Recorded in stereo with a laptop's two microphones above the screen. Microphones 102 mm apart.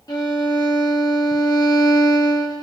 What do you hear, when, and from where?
0.1 s a violin: 40° left (ahead or behind), 0.9 m